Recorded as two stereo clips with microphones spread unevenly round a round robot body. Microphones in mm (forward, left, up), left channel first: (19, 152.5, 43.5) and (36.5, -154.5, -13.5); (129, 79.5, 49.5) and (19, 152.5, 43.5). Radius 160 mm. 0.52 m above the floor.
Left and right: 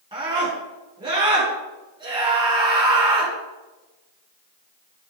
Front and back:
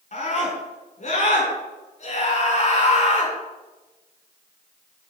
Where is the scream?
15° right, 8 m.